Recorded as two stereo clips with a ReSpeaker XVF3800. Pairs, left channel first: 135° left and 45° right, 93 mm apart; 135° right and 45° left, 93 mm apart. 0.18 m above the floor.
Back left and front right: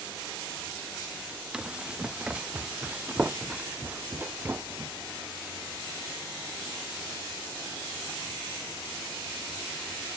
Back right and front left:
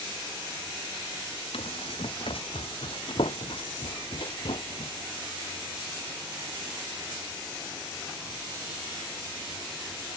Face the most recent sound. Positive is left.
turn(degrees=-110)